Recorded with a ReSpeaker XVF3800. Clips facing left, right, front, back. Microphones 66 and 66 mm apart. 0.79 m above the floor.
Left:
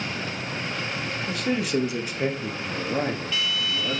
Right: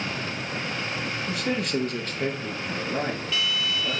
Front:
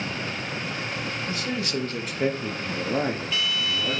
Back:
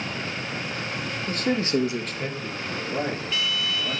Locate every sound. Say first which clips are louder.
1.3 s a man speaking: left 2 dB, back 8 dB; straight behind, 1.4 m; by 4.0 s 15° left, 3 m